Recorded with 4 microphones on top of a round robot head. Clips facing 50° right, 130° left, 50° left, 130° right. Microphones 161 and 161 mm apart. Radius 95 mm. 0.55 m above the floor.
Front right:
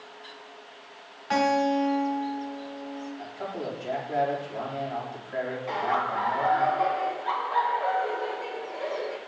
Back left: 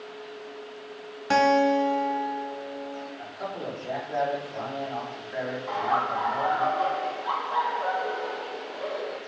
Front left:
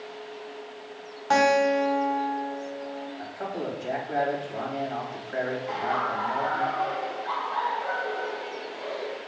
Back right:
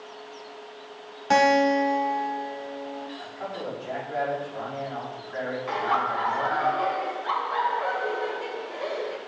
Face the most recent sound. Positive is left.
turn(degrees=-125)